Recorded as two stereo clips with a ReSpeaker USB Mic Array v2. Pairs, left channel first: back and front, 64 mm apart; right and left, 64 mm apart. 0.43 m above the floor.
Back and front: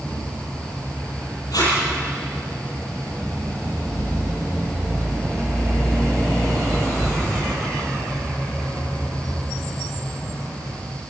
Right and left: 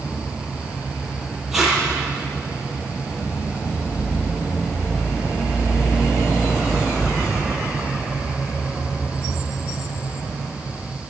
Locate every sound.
1.5 s tape being pulled: 175° left, 9 m